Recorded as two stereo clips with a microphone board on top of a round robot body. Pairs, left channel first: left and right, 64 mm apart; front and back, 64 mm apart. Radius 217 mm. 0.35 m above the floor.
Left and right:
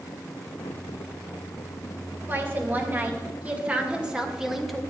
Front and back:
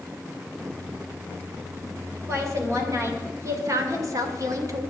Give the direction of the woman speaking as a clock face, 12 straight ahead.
5 o'clock.